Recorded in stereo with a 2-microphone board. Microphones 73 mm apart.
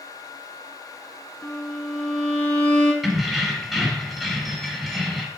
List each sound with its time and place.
1.4 s a violin: 25° left (ahead or behind), 1.0 m
3.0 s keys jangling: 5° left (ahead or behind), 1.0 m